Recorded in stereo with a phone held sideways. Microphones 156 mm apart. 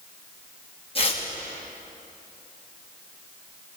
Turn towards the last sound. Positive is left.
turn(degrees=35)  # may be behind; listen again after turning